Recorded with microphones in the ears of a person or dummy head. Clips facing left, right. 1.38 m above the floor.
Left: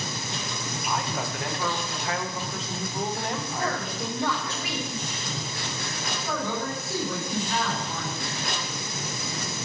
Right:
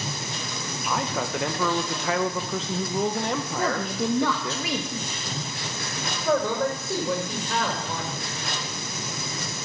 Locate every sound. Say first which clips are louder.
0.9 s a man speaking: right 3 dB; 65° right (ahead or behind), 1.3 m
3.6 s a woman speaking: right 5 dB; 70° right (ahead or behind), 1.3 m
6.2 s a man speaking: right 8 dB; 60° right (ahead or behind), 5.5 m